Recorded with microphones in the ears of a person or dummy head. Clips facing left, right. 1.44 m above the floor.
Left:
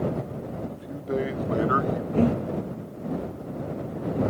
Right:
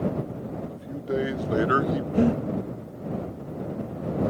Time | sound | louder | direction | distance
0.7 | a man speaking | right 1 dB | centre (ahead or behind) | ?
2.1 | breathing | right 1 dB | 10° right (ahead or behind) | ?